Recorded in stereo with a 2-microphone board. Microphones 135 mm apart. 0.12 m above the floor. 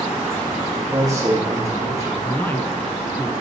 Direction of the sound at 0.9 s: 30° right (ahead or behind).